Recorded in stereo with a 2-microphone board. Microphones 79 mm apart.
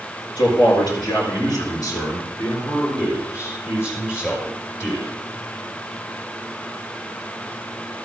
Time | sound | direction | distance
0.4 | a man speaking | 75° left (ahead or behind) | 5.5 m